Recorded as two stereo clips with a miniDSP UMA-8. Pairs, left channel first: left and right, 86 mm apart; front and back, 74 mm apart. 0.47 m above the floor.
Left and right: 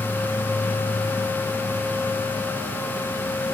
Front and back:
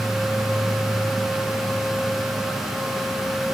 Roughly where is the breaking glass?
No breaking glass in this recording.